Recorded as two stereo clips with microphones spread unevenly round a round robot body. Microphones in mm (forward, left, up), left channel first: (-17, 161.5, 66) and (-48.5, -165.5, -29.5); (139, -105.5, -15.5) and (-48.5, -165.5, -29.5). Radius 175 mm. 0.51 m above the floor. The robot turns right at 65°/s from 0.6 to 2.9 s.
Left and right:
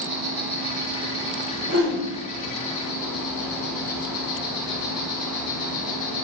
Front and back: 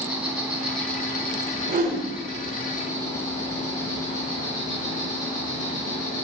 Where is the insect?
85° right, 2 m; by 6.2 s 65° left, 2 m.